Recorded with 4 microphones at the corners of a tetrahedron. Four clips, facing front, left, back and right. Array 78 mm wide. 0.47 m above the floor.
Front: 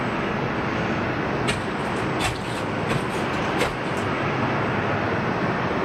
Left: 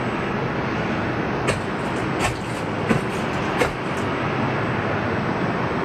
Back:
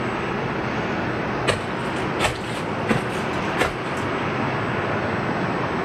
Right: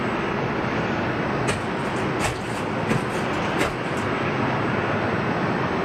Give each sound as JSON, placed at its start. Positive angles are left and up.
{"t": 1.5, "sound": "footsteps", "azimuth_deg": 145, "distance_m": 5.0}